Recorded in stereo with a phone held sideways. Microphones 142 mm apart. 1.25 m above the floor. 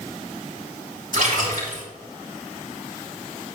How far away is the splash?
About 4 m.